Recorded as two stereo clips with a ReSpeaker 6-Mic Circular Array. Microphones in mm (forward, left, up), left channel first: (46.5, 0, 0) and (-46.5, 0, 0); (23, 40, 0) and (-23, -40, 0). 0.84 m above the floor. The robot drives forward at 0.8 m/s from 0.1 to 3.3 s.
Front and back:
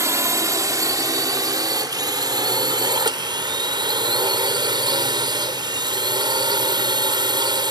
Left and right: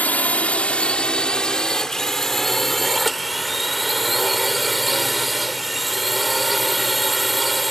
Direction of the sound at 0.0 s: 130° left.